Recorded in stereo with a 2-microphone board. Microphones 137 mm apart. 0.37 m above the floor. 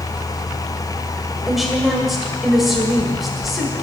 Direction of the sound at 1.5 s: Centre (ahead or behind).